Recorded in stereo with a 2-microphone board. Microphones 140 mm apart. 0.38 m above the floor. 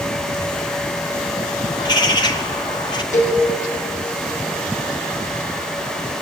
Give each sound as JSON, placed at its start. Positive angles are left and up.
{"t": 1.8, "sound": "a bird", "side_deg": 35, "distance_m": 1.5}
{"t": 3.1, "sound": "a cowbell", "side_deg": 60, "distance_m": 9.0}